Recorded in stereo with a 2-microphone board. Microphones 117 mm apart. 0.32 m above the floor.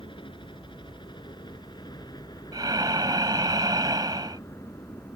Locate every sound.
0.0 s a helicopter: 45° left (ahead or behind); by 5.2 s 25° left (ahead or behind)
2.5 s breathing: 35° right (ahead or behind)